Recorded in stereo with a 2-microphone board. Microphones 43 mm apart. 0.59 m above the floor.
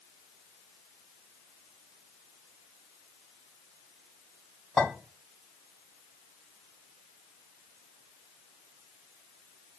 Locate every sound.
4.8 s a clink: centre (ahead or behind), 3 m